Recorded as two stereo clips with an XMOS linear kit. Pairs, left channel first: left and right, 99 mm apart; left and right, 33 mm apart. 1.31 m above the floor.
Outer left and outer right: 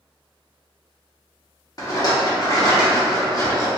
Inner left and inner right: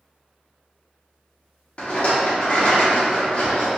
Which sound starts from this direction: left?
A rattle, at 1.8 s.